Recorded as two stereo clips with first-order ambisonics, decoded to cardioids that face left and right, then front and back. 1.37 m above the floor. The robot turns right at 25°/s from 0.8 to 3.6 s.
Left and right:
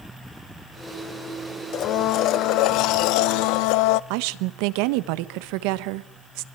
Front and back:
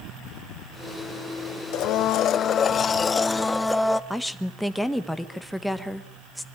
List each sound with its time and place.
1.7 s a blender: 40° left, 0.8 m; by 4.0 s 85° left, 0.8 m
4.1 s a woman speaking: 90° right, 1.4 m